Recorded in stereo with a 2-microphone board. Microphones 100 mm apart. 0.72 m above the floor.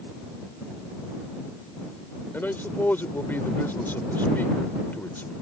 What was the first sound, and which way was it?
A man speaking, 20° left (ahead or behind).